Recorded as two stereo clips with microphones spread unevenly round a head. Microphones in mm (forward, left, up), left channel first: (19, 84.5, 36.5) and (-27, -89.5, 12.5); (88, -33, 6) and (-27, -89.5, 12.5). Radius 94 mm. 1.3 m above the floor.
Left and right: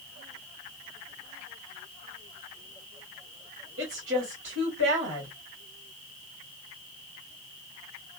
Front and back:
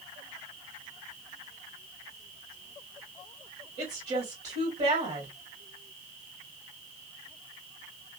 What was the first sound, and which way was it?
A woman speaking, 115° right.